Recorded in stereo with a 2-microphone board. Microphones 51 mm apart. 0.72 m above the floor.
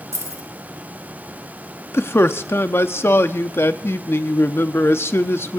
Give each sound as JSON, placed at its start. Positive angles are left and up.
{"t": 0.1, "sound": "keys jangling", "side_deg": -75, "distance_m": 1.8}
{"t": 1.9, "sound": "a man speaking", "side_deg": 50, "distance_m": 0.8}